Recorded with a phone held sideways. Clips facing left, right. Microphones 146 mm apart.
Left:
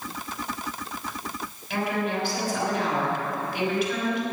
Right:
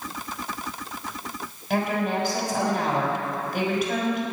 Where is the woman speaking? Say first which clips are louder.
Right 3 dB; 45° right (ahead or behind), 6 m.